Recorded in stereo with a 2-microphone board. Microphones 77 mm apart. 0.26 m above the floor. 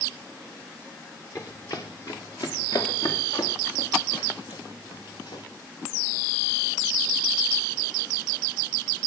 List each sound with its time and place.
1.4 s running footsteps: 40° left (ahead or behind), 2 m; by 5.4 s 80° left, 3.5 m